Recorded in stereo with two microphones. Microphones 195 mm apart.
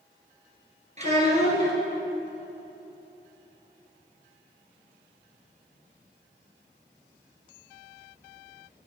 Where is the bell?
I don't hear a bell.